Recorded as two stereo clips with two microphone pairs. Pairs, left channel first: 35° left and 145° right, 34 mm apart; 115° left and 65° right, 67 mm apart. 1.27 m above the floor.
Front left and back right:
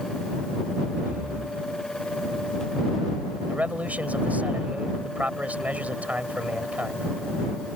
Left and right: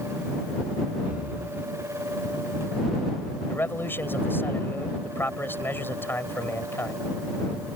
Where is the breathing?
125° right.